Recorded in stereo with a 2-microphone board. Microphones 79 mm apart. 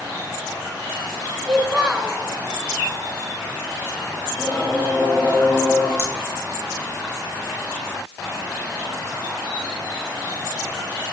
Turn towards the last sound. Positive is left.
turn(degrees=-30)  # may be behind; listen again after turning